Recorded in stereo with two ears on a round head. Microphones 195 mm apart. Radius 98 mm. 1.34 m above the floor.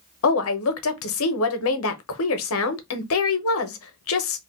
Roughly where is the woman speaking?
Left.